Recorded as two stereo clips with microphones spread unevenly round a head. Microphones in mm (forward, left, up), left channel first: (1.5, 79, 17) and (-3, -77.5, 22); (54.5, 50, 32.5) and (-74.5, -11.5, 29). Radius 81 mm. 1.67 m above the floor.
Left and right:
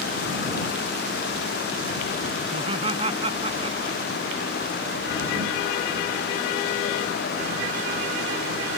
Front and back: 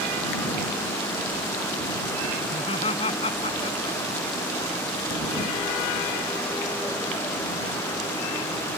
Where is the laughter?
35° right.